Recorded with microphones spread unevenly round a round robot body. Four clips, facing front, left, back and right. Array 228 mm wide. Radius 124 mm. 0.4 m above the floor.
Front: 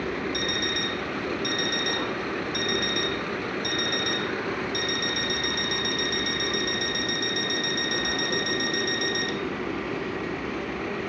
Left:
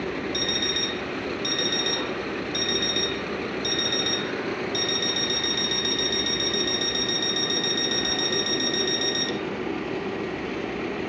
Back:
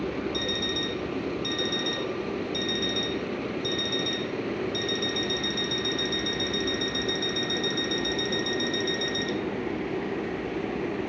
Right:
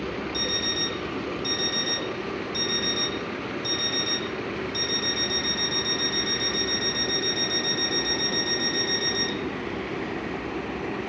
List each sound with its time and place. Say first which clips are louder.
0.3 s an alarm clock: left 1 dB, front 1 dB; 25° left, 0.7 m